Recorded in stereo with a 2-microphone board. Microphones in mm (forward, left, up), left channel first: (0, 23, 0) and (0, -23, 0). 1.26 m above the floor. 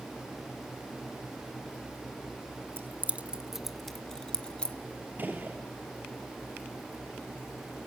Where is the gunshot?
40° right (ahead or behind), 3 m.